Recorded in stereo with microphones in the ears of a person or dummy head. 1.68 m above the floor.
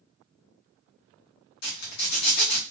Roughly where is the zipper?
Left.